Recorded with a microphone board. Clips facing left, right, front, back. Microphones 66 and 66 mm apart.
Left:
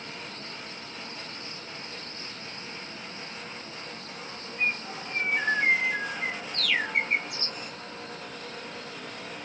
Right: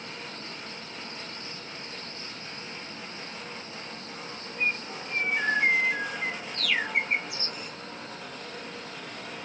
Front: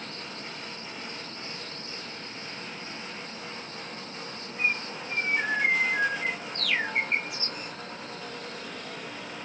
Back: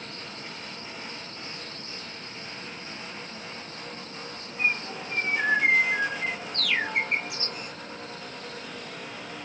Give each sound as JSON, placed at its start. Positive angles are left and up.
{"t": 4.6, "sound": "a bird", "azimuth_deg": -170, "distance_m": 3.0}